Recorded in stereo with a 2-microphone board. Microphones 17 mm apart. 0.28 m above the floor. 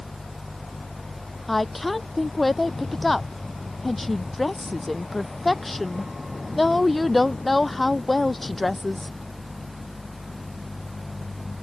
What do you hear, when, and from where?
1.5 s a woman speaking: centre (ahead or behind)